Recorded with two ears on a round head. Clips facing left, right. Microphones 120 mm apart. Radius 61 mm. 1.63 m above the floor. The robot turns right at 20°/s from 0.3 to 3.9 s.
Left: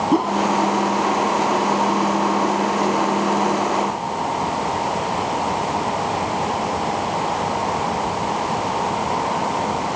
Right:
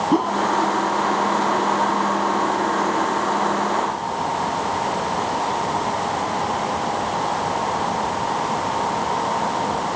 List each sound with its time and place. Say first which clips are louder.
0.1 s a whoosh: left 1 dB; centre (ahead or behind); by 0.4 s 5° left (ahead or behind)